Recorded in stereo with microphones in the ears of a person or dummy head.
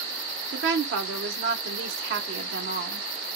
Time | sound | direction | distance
0.5 | a woman speaking | 70° right (ahead or behind) | 1.1 m